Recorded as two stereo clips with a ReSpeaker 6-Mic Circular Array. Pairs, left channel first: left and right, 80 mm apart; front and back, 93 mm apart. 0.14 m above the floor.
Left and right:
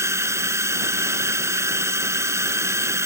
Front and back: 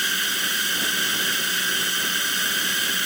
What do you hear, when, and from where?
0.0 s a drone: 90° right